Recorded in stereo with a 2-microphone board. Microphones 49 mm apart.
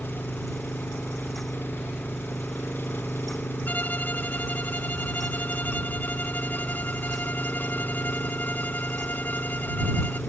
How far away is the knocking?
No knocking in this recording.